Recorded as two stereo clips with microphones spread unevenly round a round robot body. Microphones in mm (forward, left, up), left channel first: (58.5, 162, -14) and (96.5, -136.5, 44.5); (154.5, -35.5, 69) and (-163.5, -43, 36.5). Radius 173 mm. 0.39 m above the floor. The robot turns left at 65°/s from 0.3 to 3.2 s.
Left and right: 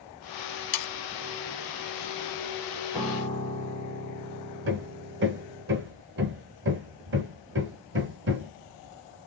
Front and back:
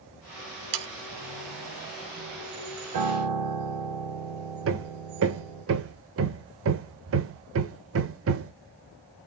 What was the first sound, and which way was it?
Sawing, 125° left.